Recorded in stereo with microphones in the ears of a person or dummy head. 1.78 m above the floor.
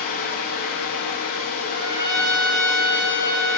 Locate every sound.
0.0 s a fan: 55° left (ahead or behind), 0.7 m
1.7 s a trumpet: 20° left (ahead or behind), 2 m